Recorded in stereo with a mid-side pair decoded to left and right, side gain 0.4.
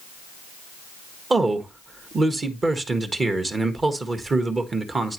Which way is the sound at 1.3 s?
35° right.